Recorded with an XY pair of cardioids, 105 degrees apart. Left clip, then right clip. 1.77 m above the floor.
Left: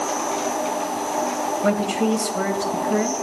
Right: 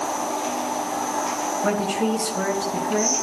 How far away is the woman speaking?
About 3 m.